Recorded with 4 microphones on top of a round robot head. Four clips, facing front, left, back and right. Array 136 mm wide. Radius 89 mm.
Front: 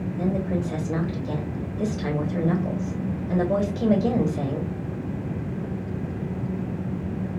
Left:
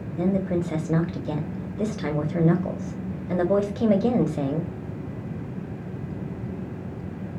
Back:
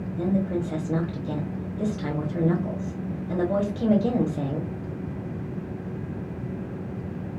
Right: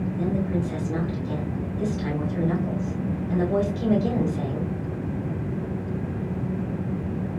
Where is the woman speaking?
85° left, 0.8 m.